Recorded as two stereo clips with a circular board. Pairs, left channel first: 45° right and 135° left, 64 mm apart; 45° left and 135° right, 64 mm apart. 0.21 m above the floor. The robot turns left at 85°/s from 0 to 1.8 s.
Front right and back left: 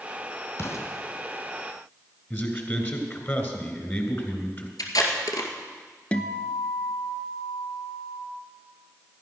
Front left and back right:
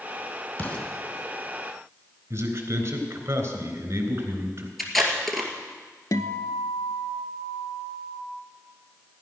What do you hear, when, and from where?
0.6 s an explosion: straight ahead, 2.5 m; by 0.9 s 30° right, 2.5 m
2.3 s a man speaking: 95° right, 3 m
4.8 s tape being pulled: 45° right, 2 m
6.1 s a guitar: 25° left, 0.9 m